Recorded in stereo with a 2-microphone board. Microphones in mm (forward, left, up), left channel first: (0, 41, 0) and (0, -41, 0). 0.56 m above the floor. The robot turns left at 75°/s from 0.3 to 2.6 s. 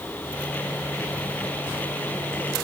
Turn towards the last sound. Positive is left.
No sound to turn to.